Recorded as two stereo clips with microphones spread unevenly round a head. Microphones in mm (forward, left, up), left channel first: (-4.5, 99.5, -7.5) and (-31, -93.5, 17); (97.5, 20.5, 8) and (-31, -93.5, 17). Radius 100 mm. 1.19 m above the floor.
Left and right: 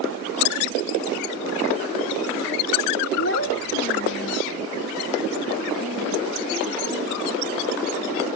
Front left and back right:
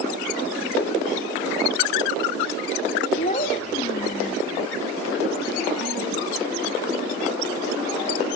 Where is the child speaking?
85° left, 0.6 m.